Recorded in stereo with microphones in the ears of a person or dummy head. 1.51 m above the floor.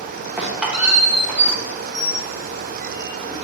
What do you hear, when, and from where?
0.4 s a squeak: 5° right (ahead or behind), 0.8 m